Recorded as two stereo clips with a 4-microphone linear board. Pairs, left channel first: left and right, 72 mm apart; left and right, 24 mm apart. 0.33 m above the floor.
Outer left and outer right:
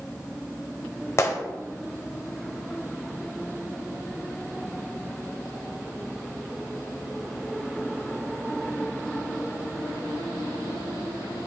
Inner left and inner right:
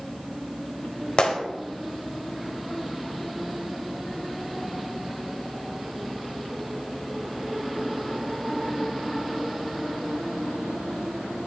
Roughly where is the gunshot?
Left.